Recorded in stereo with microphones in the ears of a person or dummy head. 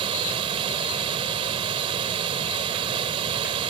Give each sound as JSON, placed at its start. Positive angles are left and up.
{"t": 0.0, "sound": "running water", "side_deg": -30}